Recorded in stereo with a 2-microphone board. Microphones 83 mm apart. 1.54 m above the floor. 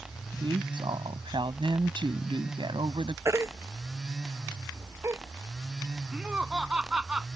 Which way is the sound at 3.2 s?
35° right (ahead or behind).